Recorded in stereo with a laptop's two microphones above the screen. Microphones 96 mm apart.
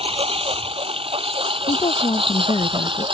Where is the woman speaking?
70° left (ahead or behind).